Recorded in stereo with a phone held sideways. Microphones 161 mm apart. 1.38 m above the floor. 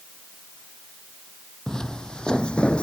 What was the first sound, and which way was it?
Footsteps, 5° left (ahead or behind).